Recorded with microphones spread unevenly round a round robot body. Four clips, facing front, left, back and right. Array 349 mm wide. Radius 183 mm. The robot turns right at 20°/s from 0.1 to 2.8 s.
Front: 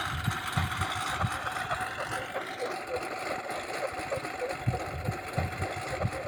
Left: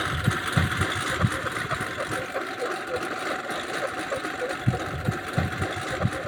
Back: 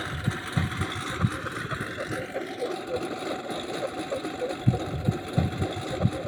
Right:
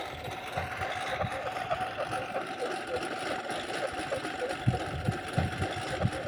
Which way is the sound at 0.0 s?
110° left.